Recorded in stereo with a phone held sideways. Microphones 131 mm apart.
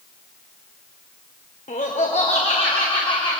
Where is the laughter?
75° left (ahead or behind), 2.5 m; by 3.4 s 35° left (ahead or behind), 3.5 m.